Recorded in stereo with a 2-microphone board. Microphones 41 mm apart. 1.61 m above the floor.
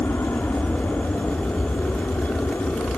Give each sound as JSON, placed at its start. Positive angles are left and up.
{"t": 0.0, "sound": "an aircraft", "side_deg": 75}